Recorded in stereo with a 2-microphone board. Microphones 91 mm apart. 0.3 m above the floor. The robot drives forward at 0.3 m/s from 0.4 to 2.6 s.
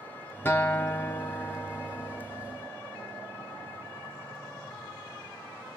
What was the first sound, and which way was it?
A guitar, 25° left (ahead or behind).